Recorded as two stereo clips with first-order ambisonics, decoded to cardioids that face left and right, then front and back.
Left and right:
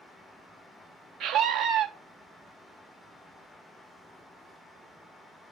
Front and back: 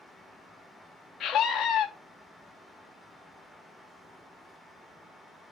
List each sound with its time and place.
1.2 s a scream: 65° right, 0.5 m